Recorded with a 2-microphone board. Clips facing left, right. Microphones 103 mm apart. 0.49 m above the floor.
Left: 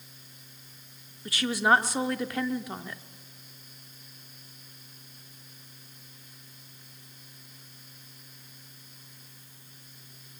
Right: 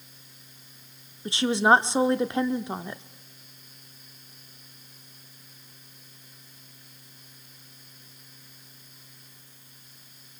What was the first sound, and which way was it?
A woman speaking, 25° right (ahead or behind).